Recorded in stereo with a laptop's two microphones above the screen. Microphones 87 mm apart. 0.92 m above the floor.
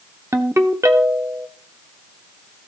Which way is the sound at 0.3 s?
35° right (ahead or behind).